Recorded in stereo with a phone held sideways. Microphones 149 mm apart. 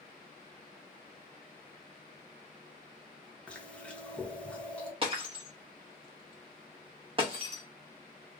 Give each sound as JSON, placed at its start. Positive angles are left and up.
{"t": 3.5, "sound": "chewing", "side_deg": 5, "distance_m": 0.8}
{"t": 5.0, "sound": "breaking glass", "side_deg": -35, "distance_m": 1.0}